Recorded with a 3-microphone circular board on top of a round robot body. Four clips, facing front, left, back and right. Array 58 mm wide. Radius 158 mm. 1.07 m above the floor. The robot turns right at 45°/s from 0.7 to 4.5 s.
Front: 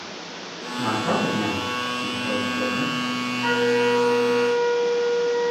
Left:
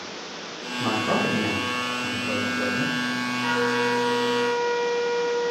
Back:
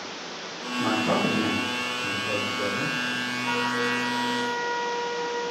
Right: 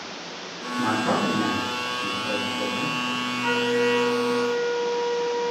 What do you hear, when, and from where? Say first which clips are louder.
0.7 s a man speaking: right 1 dB, front 1 dB; 80° right, 8 m; by 2.9 s 20° left, 8 m
3.4 s a flute: right 1 dB, front 8 dB; 30° left, 5 m; by 5.5 s 75° left, 5 m